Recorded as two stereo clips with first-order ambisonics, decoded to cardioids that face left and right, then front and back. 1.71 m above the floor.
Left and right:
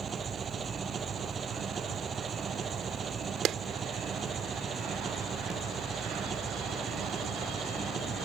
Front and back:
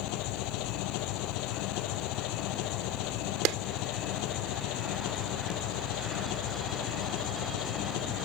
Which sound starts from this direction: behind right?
A clap, at 3.5 s.